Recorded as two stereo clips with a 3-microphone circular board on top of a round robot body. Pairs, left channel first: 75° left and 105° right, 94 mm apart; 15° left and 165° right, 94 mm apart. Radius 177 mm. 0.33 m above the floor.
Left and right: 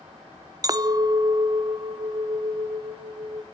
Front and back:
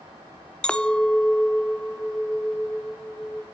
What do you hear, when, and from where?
0.6 s a clink: 60° right, 0.5 m